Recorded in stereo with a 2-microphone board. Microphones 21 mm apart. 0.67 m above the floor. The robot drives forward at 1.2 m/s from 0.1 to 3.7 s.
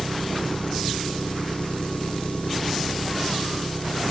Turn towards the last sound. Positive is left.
turn(degrees=90)